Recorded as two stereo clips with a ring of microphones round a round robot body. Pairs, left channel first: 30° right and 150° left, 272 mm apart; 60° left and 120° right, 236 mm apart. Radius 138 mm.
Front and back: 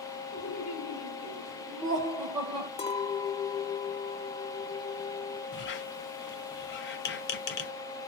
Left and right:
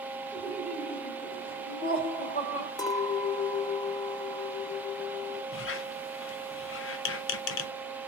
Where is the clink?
5° left, 0.5 m.